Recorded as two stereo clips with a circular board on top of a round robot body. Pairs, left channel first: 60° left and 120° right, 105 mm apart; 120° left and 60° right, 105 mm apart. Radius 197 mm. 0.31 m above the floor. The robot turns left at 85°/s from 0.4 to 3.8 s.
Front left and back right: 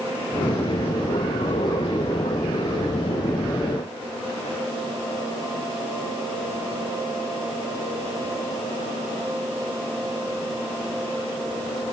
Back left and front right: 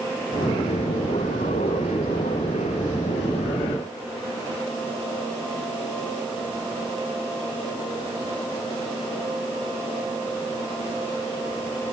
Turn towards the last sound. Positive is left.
No sound to turn to.